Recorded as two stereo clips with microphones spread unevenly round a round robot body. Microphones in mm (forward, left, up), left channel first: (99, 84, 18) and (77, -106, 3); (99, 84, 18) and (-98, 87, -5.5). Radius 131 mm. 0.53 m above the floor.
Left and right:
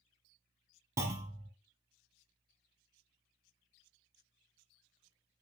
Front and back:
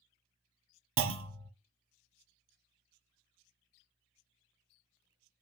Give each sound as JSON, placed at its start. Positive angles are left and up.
{"t": 1.0, "sound": "a clunk", "azimuth_deg": -175, "distance_m": 0.6}